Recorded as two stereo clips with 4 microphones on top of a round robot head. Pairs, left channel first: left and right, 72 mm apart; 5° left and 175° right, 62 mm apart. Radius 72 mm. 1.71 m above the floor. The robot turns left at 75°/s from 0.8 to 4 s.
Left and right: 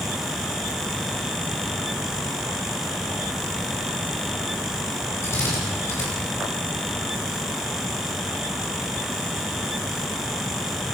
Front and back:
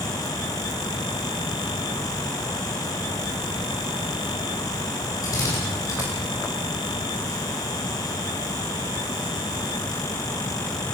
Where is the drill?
35° left, 9 m.